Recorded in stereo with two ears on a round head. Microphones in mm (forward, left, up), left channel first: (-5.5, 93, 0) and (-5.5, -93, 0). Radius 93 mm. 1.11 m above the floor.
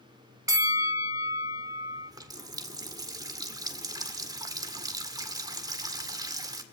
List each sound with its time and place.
0.5 s a bell: 15° right (ahead or behind), 1.9 m
2.0 s a running tap: 20° right (ahead or behind), 1.9 m